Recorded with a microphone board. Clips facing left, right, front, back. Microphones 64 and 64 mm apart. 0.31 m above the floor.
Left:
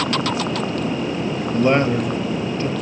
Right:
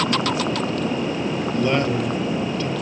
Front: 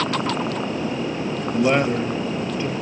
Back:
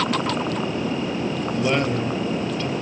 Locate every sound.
1.5 s a man speaking: 55° left, 1.1 m